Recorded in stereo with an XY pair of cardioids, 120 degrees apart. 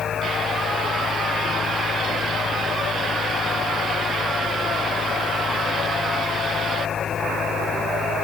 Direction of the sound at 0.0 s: 35° left.